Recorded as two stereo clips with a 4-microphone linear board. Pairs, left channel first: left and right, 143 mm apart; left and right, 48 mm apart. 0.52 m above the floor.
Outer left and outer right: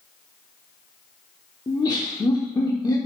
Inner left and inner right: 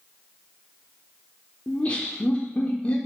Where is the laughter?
30° left (ahead or behind), 1.0 m.